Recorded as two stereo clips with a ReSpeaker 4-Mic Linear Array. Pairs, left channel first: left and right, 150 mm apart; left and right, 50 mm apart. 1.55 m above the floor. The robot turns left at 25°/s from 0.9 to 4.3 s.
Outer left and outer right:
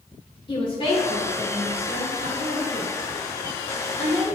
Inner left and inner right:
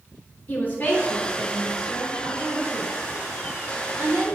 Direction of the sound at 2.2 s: 65° right (ahead or behind).